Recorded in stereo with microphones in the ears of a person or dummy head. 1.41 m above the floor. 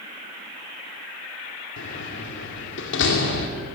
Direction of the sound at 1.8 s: 70° left (ahead or behind).